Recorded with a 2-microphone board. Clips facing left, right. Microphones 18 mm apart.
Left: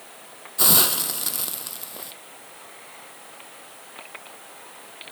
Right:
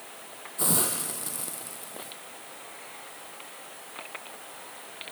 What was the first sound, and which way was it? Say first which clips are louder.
A hiss: left 8 dB; 70° left (ahead or behind).